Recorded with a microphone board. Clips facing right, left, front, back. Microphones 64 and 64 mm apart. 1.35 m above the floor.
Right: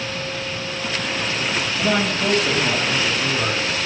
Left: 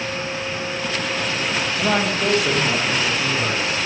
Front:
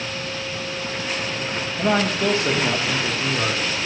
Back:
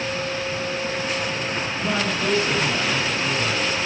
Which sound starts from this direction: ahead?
A man speaking, at 1.8 s.